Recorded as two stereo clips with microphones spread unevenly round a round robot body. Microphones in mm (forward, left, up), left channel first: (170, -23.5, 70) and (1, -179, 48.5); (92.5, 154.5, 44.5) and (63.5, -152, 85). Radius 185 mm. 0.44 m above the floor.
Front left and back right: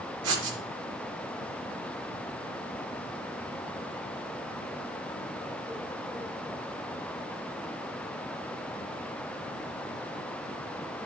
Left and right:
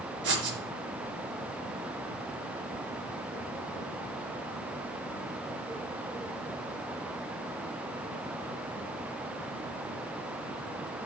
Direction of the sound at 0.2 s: 155° right.